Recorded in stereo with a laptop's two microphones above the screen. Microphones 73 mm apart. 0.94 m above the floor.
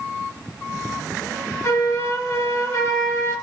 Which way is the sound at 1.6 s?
40° left (ahead or behind).